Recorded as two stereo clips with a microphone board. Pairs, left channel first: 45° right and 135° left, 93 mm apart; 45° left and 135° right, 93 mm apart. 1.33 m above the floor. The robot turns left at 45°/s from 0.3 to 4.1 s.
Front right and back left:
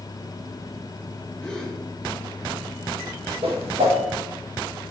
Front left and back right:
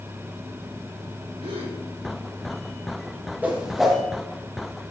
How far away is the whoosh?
About 1.3 m.